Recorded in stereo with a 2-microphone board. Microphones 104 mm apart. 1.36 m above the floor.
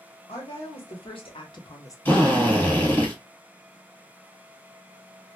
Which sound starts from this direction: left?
A woman speaking, at 0.3 s.